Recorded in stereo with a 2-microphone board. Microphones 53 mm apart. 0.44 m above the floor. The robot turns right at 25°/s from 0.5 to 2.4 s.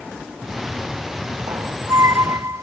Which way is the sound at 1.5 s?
85° right.